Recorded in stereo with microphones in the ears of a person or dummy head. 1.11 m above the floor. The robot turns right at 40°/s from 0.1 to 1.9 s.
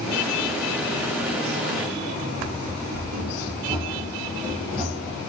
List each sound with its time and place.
2.4 s running footsteps: 50° right (ahead or behind), 1.7 m; by 5.2 s 10° right (ahead or behind), 2.5 m